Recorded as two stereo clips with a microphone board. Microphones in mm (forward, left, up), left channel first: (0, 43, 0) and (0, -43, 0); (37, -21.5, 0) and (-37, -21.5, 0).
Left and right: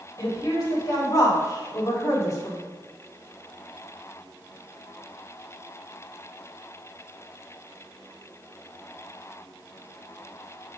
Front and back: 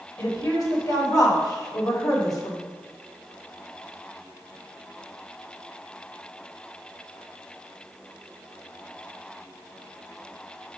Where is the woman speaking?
40° left, 2.5 m.